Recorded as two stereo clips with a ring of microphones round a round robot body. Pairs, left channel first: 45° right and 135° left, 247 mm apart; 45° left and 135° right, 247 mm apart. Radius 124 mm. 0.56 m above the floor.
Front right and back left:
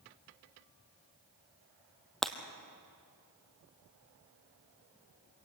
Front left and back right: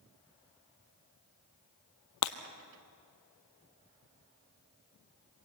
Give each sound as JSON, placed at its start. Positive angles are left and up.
{"t": 2.2, "sound": "breaking glass", "azimuth_deg": 45, "distance_m": 1.2}